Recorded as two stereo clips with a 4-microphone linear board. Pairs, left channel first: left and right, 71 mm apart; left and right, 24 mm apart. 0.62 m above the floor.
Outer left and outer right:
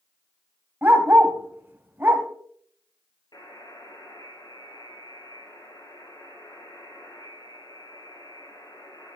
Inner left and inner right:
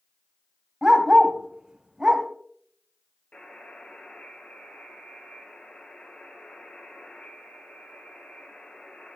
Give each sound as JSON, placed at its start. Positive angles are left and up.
{"t": 0.8, "sound": "a dog barking", "side_deg": -30, "distance_m": 1.2}
{"t": 3.3, "sound": "a buzzer", "side_deg": 80, "distance_m": 3.0}